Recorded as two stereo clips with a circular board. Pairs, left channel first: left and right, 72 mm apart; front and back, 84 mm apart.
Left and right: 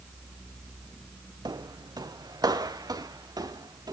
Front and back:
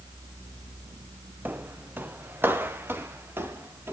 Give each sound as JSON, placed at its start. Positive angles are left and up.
{"t": 1.4, "sound": "footsteps", "azimuth_deg": -110, "distance_m": 0.9}